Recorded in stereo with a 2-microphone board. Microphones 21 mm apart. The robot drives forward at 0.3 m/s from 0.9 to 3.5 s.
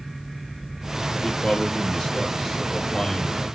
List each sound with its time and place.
1.2 s a man speaking: 20° left (ahead or behind), 1.4 m